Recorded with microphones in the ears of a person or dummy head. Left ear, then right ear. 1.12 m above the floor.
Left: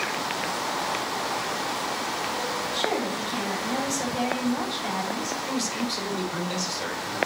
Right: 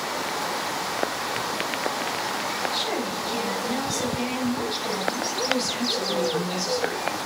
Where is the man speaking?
35° left (ahead or behind), 3.5 m.